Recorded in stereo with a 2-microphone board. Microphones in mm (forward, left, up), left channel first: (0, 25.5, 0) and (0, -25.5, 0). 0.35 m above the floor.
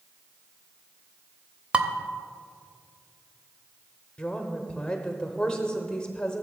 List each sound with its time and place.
1.7 s dishes clattering: 20° right (ahead or behind), 0.7 m
4.2 s a woman speaking: 15° left (ahead or behind), 0.9 m